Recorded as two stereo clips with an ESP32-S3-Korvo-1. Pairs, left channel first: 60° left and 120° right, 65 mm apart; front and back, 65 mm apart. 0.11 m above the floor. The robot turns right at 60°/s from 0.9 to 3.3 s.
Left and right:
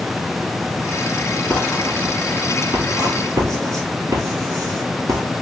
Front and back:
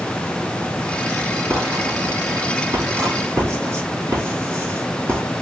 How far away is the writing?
About 3 m.